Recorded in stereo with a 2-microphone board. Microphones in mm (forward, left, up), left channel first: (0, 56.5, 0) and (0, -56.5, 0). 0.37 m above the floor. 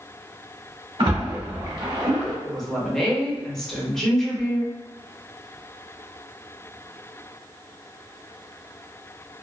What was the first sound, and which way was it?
A splash, 45° right (ahead or behind).